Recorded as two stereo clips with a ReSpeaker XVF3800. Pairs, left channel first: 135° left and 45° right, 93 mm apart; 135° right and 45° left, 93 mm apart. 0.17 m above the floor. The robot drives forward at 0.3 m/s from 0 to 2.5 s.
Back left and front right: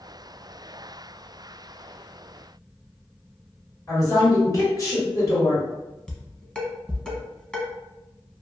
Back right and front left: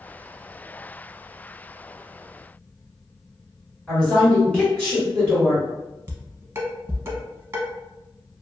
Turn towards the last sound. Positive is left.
turn(degrees=65)